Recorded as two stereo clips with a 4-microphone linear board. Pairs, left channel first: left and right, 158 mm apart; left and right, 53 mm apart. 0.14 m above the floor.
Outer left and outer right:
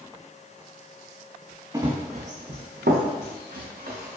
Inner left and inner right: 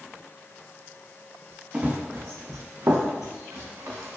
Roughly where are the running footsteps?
Right.